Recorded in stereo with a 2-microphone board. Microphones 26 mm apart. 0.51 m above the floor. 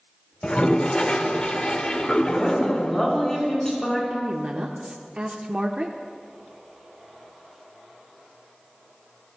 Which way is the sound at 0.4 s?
50° left (ahead or behind).